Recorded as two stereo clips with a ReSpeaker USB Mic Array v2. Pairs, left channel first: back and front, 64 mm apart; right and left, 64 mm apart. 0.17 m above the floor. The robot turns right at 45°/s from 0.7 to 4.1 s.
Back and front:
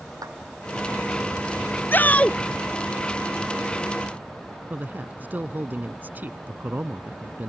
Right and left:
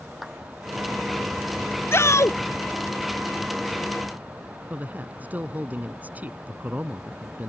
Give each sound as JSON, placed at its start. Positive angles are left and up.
{"t": 0.2, "sound": "a clap", "azimuth_deg": 5}
{"t": 1.9, "sound": "a shout", "azimuth_deg": -130}
{"t": 4.7, "sound": "a man speaking", "azimuth_deg": 40}